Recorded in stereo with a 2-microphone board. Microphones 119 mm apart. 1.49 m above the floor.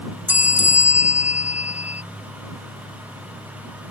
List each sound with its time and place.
0.3 s a bell: 15° right (ahead or behind)